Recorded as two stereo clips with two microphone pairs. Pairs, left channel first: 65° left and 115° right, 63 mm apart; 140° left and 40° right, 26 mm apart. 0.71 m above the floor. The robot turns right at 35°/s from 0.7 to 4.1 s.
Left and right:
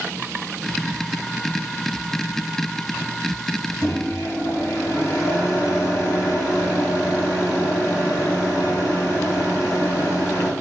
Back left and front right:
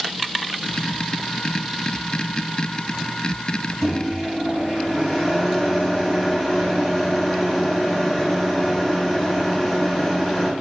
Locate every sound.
3.8 s a microwave: 75° left, 1.8 m; by 10.5 s 90° left, 1.8 m